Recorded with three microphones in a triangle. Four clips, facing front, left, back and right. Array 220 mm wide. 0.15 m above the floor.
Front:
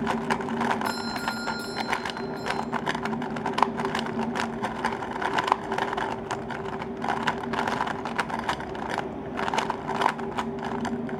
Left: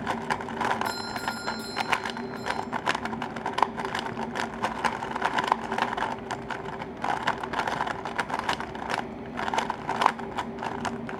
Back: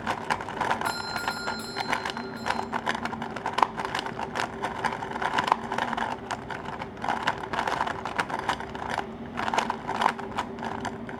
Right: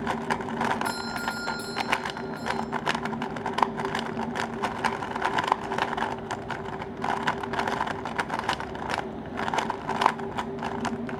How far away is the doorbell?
About 2.0 m.